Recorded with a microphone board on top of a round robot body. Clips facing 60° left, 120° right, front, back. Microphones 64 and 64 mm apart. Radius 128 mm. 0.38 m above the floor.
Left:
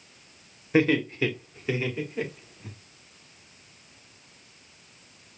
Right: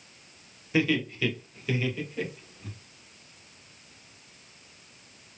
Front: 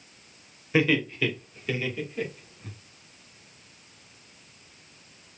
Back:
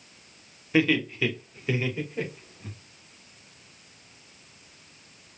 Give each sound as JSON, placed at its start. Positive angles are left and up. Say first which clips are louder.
{"t": 0.7, "sound": "laughter", "louder": "left 4 dB, even", "azimuth_deg": 80, "distance_m": 1.6}